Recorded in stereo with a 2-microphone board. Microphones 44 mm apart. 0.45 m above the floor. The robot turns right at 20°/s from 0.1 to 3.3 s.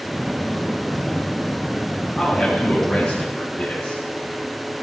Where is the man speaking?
10° left (ahead or behind), 4.5 m; by 4.0 s 30° left (ahead or behind), 4.5 m.